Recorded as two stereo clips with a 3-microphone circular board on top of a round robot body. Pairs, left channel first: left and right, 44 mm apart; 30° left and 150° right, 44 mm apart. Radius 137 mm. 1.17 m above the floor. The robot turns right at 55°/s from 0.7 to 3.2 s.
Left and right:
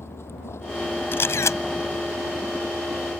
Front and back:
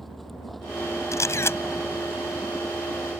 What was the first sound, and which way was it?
A vehicle, 120° left.